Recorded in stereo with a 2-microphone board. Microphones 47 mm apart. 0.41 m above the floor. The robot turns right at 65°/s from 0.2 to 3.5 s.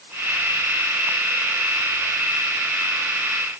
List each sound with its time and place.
Only background noise.